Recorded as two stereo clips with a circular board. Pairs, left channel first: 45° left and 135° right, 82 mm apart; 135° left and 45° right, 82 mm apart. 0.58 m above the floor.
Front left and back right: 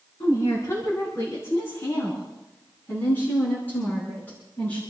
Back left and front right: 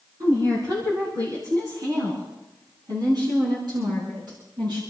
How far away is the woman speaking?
About 5 m.